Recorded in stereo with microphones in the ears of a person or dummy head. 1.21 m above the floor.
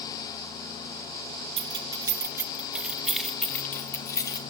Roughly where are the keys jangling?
Right.